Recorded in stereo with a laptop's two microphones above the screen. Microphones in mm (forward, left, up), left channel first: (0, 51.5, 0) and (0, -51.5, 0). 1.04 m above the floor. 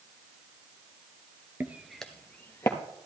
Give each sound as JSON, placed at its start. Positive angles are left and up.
{"t": 1.6, "sound": "footsteps", "side_deg": -20, "distance_m": 1.0}